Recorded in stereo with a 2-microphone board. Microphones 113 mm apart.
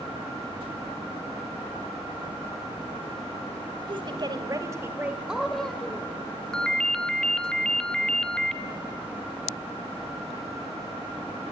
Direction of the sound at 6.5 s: 5° left (ahead or behind).